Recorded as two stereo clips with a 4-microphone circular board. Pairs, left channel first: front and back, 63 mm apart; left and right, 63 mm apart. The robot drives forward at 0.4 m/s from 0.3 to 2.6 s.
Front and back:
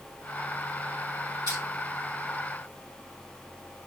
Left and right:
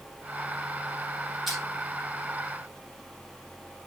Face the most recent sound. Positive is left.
turn(degrees=-175)